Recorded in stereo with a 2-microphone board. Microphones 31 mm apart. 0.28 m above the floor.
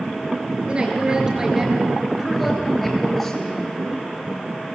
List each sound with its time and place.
0.7 s a woman speaking: 35° right (ahead or behind), 4.5 m; by 3.6 s 15° left (ahead or behind), 5 m